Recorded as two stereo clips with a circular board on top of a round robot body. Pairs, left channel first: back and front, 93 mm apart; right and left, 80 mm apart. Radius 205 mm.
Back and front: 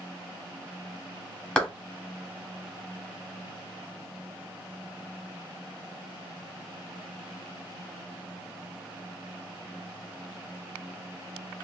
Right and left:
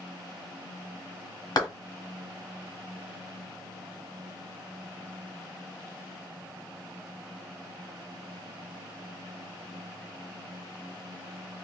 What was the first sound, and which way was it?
A clap, 105° right.